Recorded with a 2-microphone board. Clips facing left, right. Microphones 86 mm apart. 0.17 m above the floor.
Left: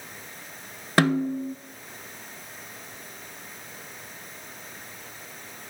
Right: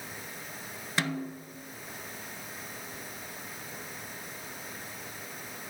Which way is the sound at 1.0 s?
65° left (ahead or behind).